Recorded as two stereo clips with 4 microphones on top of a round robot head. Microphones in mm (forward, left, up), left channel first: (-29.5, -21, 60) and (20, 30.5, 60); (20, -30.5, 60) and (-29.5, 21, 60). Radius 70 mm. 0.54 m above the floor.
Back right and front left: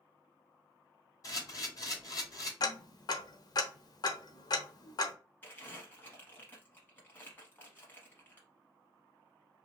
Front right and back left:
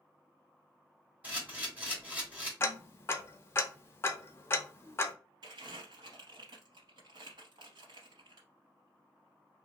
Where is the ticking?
105° right, 0.6 m.